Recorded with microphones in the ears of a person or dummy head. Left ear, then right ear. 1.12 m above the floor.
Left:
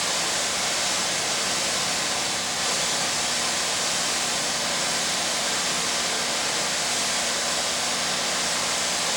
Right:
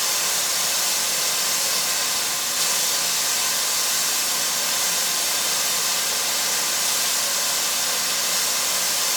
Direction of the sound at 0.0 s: 70° right (ahead or behind).